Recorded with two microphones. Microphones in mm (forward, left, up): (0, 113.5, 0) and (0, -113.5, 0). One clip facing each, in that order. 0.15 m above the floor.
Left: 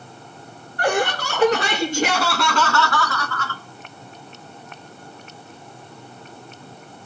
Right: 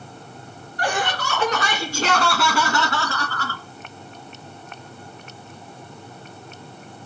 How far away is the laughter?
About 2.5 m.